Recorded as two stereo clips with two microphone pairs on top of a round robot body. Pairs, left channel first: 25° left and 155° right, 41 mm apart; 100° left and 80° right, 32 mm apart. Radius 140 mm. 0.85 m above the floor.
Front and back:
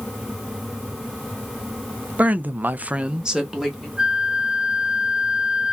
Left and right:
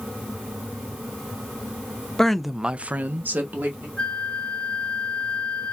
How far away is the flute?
About 1.2 m.